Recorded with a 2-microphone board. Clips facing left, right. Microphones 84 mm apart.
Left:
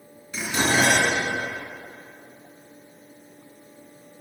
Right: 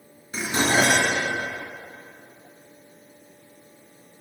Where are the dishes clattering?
40° right (ahead or behind), 2.5 m.